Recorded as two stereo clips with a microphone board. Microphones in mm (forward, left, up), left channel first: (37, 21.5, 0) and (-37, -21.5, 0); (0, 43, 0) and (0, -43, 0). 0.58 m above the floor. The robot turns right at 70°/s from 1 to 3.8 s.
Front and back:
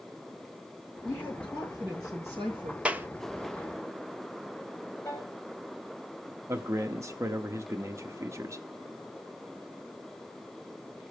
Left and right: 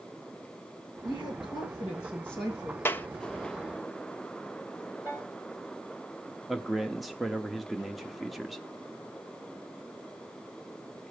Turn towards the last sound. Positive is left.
turn(degrees=180)